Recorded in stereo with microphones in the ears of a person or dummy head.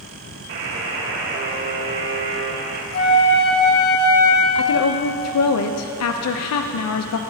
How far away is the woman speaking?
About 0.6 m.